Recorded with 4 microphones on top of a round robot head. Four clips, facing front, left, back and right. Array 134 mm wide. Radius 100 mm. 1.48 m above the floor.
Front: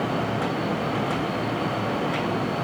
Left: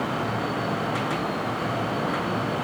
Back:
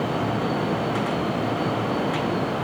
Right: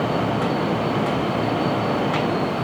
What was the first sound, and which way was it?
Only background noise.